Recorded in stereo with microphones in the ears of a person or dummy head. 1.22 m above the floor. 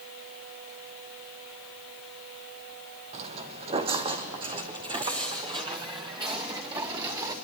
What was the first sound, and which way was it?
Footsteps, 40° right (ahead or behind).